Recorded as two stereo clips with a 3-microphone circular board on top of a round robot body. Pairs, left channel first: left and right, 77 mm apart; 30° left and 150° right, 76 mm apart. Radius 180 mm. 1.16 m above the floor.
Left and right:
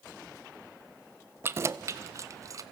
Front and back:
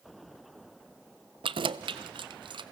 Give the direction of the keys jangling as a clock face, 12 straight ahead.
5 o'clock.